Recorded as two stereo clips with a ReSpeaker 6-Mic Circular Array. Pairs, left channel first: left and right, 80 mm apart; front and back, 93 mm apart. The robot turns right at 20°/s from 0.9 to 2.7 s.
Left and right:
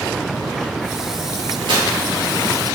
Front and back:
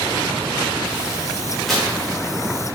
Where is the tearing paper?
90° right, 1.7 m; by 1.9 s 85° right, 1.7 m.